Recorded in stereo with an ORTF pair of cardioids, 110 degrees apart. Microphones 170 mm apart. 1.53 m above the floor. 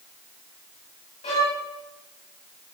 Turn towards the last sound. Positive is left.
turn(degrees=40)